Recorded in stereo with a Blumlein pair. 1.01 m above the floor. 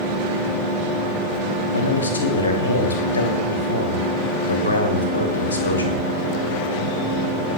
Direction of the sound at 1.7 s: 70° left.